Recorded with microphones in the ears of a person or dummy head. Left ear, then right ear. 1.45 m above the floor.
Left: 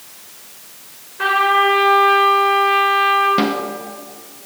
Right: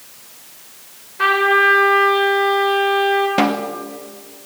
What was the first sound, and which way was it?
A trumpet, 20° right (ahead or behind).